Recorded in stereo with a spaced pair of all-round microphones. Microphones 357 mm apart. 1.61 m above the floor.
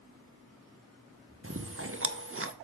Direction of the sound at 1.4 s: 35° right (ahead or behind).